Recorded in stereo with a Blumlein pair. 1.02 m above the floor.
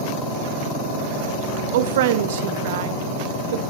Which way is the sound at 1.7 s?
55° right.